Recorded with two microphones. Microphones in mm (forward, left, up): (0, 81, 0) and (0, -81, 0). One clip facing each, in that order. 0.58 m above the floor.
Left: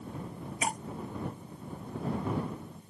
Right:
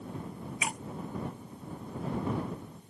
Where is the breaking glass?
40° left (ahead or behind).